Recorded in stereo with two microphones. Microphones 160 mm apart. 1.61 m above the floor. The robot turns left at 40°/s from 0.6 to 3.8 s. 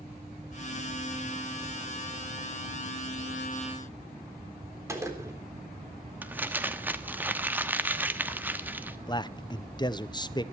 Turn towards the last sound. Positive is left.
turn(degrees=25)  # may be behind; listen again after turning